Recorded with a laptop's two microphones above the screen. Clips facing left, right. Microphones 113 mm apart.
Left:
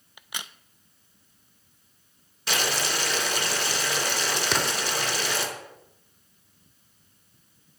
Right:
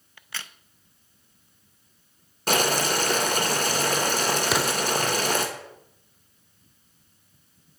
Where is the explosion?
5° right (ahead or behind), 0.6 m.